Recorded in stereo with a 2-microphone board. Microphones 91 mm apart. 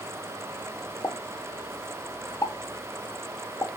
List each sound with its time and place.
1.0 s a pop: 40° left (ahead or behind), 0.8 m